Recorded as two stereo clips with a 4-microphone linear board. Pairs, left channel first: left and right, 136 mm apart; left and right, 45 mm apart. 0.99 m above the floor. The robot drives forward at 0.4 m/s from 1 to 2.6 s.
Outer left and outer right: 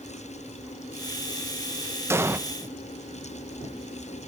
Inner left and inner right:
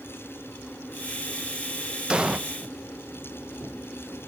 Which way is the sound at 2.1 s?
20° right (ahead or behind).